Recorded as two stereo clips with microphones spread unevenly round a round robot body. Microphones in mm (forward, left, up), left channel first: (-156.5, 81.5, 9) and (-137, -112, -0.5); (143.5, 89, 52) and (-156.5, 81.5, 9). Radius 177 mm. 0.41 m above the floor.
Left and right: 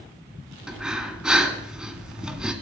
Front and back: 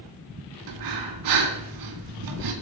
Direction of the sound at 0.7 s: 170° right.